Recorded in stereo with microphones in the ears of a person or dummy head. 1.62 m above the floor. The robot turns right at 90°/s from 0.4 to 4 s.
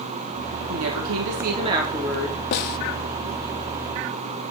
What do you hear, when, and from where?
0.7 s a woman speaking: 120° right, 4.5 m; by 2.4 s 30° left, 4.5 m
2.5 s a snare drum: 45° left (ahead or behind), 0.7 m; by 2.8 s 40° left (ahead or behind), 0.7 m